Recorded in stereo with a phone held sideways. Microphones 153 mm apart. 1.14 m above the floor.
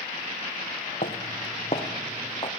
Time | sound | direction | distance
1.0 | footsteps | 55° left (ahead or behind) | 2.5 m